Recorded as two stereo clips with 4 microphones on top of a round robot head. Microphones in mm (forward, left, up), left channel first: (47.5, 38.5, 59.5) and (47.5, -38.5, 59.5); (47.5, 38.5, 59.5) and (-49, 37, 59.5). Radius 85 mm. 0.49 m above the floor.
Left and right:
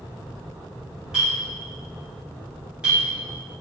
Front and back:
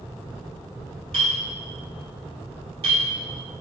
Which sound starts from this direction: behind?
A clink, at 1.1 s.